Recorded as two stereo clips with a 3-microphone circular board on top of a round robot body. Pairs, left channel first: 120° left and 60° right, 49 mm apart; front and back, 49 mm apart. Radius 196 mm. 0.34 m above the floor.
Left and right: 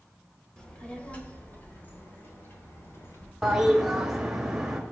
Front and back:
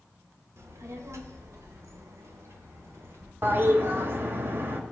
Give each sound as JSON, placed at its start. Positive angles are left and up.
{"t": 0.6, "sound": "a child speaking", "azimuth_deg": -165, "distance_m": 2.0}
{"t": 3.4, "sound": "a toilet flushing", "azimuth_deg": -140, "distance_m": 1.4}